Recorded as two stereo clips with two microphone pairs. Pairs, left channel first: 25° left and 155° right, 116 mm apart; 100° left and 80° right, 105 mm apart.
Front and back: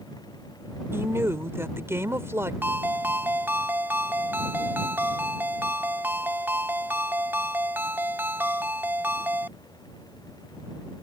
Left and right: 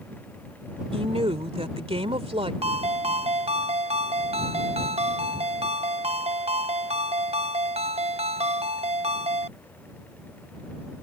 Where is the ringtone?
85° right.